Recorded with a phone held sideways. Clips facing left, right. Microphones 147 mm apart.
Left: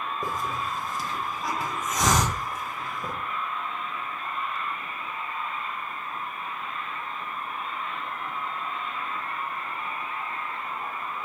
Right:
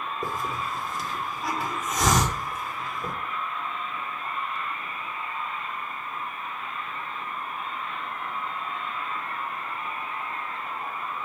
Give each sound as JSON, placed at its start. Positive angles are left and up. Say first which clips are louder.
{"t": 0.2, "sound": "a hiss", "louder": "right 1 dB", "side_deg": 0, "distance_m": 1.5}